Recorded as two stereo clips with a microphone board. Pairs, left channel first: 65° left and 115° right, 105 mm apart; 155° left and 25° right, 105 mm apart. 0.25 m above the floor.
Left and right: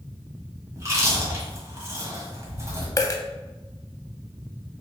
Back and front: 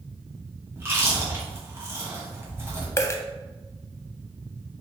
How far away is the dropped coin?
About 0.5 m.